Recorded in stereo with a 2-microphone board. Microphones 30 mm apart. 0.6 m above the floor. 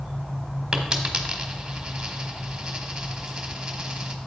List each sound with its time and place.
0.7 s a dropped coin: 25° right (ahead or behind), 1.4 m